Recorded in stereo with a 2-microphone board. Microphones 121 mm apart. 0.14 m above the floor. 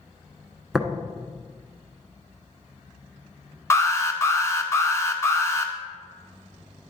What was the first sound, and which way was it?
Tapping, centre (ahead or behind).